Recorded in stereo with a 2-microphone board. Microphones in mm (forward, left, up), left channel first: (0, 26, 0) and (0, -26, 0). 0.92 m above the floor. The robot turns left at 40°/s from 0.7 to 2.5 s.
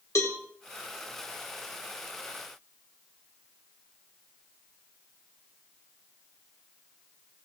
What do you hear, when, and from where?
0.1 s a cowbell: 75° left (ahead or behind), 2.5 m